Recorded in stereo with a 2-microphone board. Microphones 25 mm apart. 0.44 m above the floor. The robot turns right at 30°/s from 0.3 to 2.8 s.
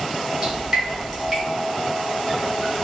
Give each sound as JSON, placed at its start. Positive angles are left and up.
{"t": 0.4, "sound": "dripping", "side_deg": -30, "distance_m": 2.0}